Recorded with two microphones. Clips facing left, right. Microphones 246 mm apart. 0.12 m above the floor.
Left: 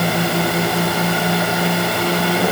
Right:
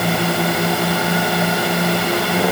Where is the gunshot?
No gunshot in this recording.